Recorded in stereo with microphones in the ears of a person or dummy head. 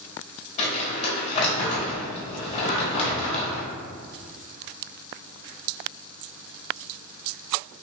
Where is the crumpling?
35° left (ahead or behind), 1.2 m.